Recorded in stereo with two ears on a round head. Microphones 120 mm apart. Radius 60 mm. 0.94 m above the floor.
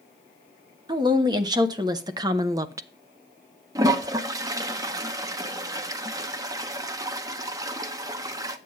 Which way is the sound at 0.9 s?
30° right (ahead or behind).